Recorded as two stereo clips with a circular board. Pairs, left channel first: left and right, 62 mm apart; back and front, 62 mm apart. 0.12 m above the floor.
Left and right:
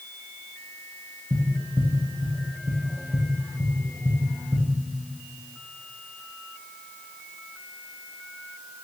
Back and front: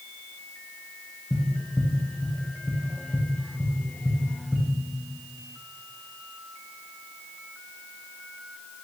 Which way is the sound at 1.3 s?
105° right.